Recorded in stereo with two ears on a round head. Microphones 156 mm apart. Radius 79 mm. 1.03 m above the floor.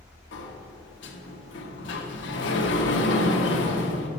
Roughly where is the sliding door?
Left.